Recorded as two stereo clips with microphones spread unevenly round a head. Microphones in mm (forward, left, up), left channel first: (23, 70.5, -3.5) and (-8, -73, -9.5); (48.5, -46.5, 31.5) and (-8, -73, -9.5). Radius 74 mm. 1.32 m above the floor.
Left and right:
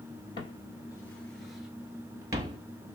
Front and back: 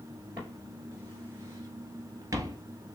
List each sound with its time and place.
0.4 s footsteps: 90° left, 1.5 m; by 2.6 s 95° right, 1.4 m